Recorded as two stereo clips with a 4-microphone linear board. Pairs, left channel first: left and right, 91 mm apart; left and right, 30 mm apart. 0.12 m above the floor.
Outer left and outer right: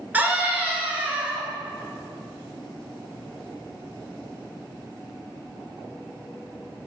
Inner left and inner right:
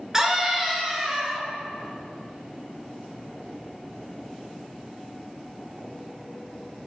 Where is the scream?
20° right (ahead or behind), 2 m.